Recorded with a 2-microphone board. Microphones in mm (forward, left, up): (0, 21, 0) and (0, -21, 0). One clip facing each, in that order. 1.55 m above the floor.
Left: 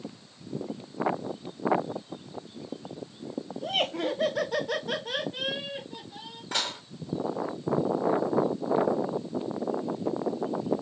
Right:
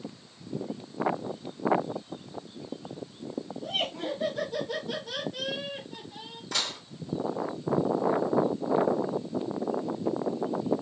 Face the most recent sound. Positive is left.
turn(degrees=30)  # may be behind; listen again after turning